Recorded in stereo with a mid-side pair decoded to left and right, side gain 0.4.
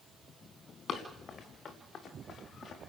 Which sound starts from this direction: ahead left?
Running footsteps, at 0.9 s.